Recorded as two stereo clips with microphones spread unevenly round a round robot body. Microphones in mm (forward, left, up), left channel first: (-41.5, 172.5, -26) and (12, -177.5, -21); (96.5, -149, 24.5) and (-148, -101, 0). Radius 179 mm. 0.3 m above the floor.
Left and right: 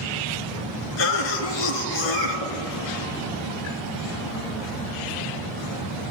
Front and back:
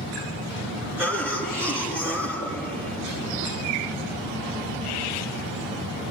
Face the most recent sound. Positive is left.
turn(degrees=85)